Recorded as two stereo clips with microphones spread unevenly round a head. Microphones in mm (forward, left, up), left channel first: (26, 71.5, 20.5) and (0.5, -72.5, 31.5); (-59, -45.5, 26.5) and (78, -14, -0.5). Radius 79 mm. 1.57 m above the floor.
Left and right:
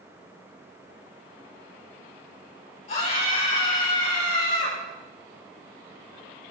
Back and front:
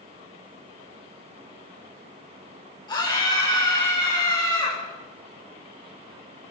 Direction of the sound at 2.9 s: 125° left.